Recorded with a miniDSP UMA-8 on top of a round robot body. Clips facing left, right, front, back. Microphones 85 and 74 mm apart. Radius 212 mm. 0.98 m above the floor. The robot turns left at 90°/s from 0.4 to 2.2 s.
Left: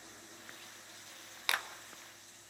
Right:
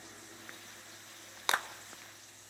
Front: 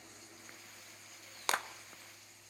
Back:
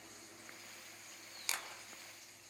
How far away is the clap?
About 1.3 m.